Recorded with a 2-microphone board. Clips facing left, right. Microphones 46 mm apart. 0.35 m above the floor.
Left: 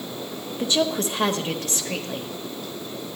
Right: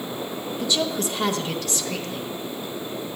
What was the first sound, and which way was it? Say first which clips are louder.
A woman speaking: left 2 dB; 35° left (ahead or behind).